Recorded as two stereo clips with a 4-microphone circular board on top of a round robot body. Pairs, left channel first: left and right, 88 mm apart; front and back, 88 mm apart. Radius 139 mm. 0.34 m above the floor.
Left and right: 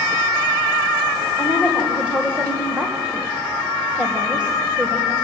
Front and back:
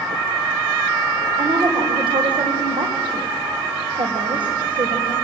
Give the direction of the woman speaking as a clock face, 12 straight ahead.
6 o'clock.